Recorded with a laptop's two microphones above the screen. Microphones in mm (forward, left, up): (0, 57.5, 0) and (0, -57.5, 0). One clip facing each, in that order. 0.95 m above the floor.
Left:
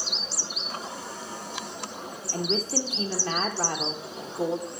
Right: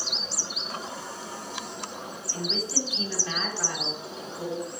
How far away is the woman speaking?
About 1.2 m.